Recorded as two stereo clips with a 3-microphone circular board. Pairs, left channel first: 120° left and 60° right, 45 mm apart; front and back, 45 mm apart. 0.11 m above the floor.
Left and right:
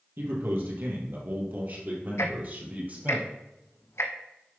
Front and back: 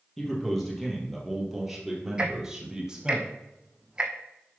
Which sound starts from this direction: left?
Ticking, at 2.2 s.